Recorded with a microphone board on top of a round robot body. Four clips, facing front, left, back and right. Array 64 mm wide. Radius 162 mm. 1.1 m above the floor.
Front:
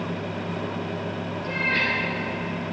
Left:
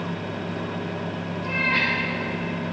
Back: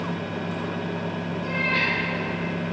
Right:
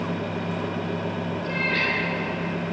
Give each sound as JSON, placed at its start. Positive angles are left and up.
{"t": 1.4, "sound": "a cat meowing", "azimuth_deg": 95, "distance_m": 4.0}